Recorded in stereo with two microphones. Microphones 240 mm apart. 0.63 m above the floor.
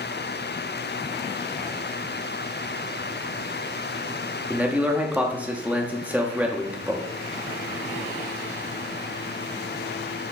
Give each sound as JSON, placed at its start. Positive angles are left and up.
{"t": 4.5, "sound": "a man speaking", "side_deg": -5, "distance_m": 0.6}